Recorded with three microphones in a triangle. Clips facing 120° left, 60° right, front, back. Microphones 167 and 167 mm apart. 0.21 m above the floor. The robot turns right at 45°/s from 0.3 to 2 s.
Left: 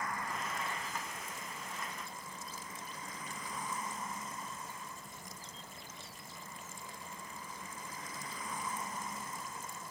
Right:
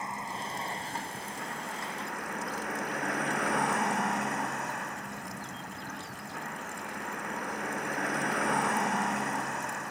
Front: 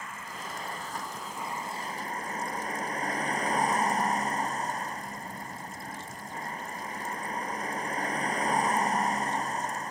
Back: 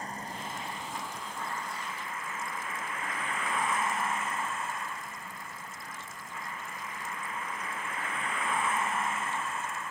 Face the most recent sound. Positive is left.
turn(degrees=-50)